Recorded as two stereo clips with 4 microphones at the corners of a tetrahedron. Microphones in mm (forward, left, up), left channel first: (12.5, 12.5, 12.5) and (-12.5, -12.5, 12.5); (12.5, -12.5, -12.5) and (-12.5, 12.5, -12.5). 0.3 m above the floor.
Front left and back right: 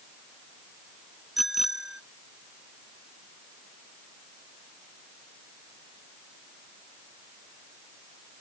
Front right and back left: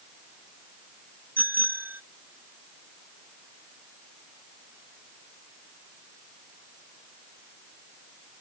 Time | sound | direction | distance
1.4 | a bicycle bell | 140° left | ?